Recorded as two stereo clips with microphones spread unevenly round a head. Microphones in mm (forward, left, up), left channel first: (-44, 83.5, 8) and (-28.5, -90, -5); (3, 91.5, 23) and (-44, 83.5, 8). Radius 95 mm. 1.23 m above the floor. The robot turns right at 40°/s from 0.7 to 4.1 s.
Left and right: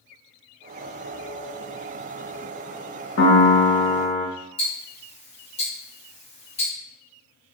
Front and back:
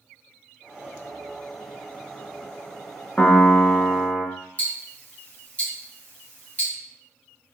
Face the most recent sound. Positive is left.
turn(degrees=45)